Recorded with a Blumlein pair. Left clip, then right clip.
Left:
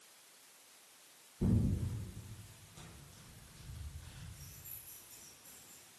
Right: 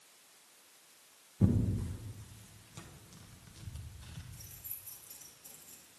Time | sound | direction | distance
1.4 | tearing paper | 65° right | 1.3 m
4.3 | keys jangling | 35° right | 1.8 m